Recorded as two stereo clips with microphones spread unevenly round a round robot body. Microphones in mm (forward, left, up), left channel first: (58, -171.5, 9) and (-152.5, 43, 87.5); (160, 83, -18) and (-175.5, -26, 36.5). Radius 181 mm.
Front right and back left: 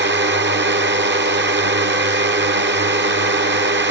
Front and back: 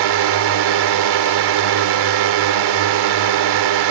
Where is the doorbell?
I don't hear a doorbell.